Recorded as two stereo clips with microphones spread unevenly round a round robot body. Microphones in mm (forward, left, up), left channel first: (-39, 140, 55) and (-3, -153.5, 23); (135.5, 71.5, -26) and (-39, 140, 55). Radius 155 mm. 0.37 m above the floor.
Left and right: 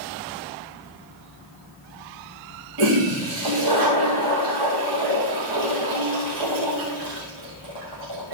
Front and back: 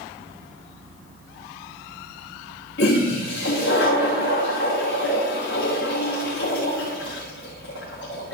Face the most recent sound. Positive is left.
turn(degrees=-75)